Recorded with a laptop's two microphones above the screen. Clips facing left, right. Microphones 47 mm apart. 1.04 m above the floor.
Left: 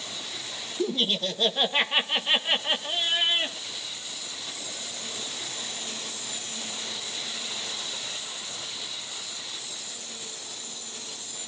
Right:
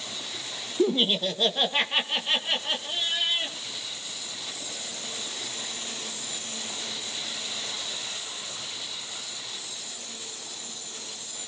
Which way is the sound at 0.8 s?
30° right (ahead or behind).